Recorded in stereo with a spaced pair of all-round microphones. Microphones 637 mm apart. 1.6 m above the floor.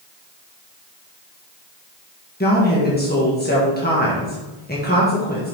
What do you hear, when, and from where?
2.4 s a woman speaking: 15° left (ahead or behind), 1.6 m